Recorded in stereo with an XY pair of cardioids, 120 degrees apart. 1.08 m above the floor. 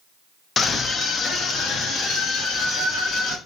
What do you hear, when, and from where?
0.6 s a scream: 40° left, 0.7 m; by 3.4 s 65° left, 2 m